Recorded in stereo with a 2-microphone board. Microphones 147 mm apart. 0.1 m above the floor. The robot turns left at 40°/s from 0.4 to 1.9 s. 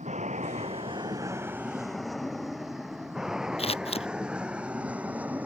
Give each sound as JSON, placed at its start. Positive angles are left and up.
{"t": 0.0, "sound": "an aircraft", "side_deg": -55}
{"t": 3.6, "sound": "scissors", "side_deg": 40}